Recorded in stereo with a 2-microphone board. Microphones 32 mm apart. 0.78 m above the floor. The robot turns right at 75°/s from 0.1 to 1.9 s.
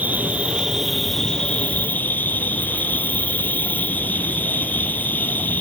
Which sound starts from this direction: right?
An insect, at 0.0 s.